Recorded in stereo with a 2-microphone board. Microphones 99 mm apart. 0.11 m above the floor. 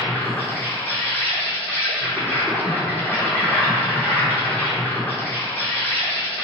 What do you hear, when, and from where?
0.0 s an insect: 20° left (ahead or behind), 0.9 m